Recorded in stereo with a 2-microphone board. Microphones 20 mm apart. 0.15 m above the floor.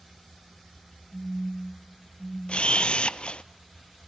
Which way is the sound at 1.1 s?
70° right (ahead or behind).